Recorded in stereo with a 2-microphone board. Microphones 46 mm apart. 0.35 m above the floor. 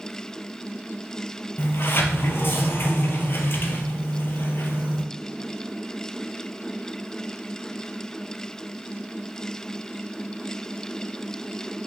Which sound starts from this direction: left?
A sliding door, at 1.6 s.